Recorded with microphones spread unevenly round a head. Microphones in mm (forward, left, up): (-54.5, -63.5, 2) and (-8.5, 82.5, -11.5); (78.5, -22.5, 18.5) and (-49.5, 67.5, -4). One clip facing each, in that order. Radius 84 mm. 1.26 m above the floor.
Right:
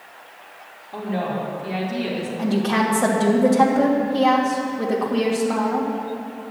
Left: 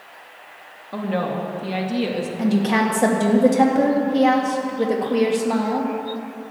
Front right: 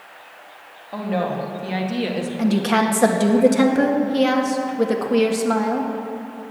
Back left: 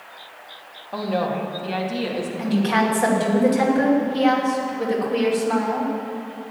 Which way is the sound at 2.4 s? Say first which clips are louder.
Left 2 dB, front right 2 dB; straight ahead.